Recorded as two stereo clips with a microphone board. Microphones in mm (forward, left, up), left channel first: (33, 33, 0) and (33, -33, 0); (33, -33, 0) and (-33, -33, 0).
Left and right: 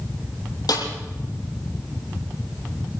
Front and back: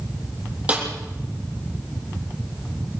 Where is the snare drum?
110° left, 8.5 m.